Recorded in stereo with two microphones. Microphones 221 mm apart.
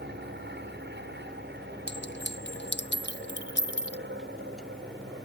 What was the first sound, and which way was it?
An aircraft, 50° right (ahead or behind).